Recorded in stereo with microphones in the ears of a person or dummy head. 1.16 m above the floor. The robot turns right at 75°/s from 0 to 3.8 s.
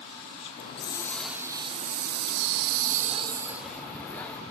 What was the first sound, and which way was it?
A hiss, 125° left.